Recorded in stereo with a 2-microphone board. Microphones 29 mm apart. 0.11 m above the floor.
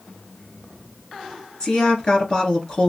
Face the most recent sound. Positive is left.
turn(degrees=35)  # may be behind; listen again after turning